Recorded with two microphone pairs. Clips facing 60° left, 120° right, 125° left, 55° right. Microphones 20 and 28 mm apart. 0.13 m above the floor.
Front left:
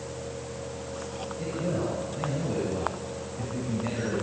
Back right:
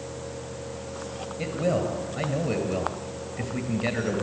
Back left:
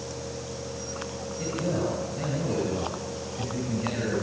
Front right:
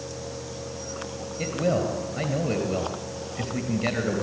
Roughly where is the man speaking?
Right.